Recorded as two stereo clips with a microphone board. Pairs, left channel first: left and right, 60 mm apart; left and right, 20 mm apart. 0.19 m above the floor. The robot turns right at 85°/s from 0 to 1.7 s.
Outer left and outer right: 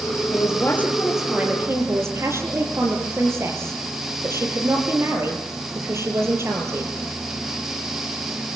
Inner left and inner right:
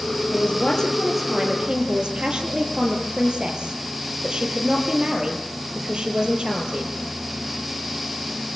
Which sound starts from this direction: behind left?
A man speaking, at 0.3 s.